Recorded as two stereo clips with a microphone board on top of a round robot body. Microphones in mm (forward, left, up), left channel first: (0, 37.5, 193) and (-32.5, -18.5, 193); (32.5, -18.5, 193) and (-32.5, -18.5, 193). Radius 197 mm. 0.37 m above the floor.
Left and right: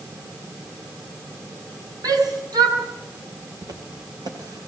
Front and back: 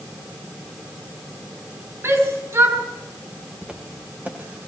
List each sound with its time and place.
2.0 s a shout: 130° right, 7 m
3.6 s footsteps: 110° right, 6.5 m; by 4.7 s 120° right, 7 m